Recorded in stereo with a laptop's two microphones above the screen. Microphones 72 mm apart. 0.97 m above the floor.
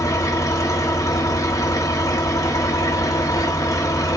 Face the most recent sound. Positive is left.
turn(degrees=50)  # may be behind; listen again after turning